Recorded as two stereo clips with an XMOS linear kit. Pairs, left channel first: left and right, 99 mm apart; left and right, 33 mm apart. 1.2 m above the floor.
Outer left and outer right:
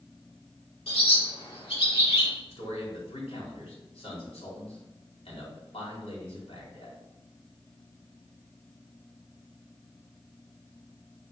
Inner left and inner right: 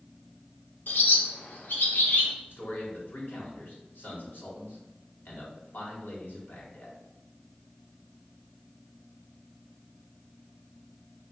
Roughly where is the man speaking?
Left.